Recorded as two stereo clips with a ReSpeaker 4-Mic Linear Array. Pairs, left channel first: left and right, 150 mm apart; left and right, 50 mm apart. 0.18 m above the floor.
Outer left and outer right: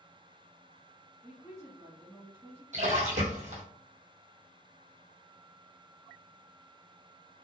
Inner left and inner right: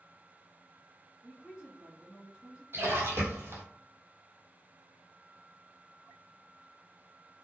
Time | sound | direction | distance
1.2 | a woman speaking | 20° right (ahead or behind) | 1.6 m
2.7 | a splash | 55° right (ahead or behind) | 1.0 m